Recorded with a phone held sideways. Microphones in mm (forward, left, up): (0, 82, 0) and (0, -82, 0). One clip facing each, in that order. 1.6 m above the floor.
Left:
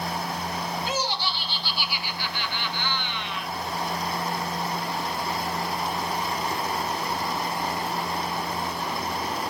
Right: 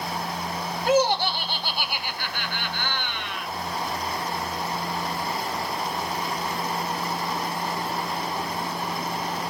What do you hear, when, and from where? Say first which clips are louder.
0.9 s laughter: right 9 dB; 55° right (ahead or behind), 1.7 m